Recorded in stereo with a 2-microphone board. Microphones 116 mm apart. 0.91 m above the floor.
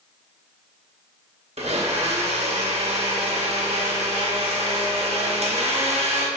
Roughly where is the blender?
Right.